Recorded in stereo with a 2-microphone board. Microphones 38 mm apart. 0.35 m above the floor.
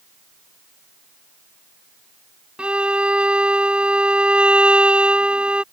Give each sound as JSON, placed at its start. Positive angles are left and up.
{"t": 2.6, "sound": "a violin", "side_deg": -30}